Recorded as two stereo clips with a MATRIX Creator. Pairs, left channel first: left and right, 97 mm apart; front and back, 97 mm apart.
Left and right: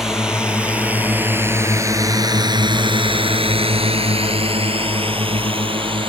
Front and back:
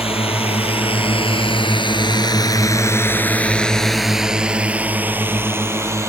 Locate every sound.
0.0 s a drone: 5° right; by 6.1 s 120° right